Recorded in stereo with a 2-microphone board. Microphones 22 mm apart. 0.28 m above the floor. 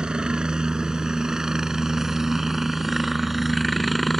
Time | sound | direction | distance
0.0 | a helicopter | 35° right (ahead or behind) | ?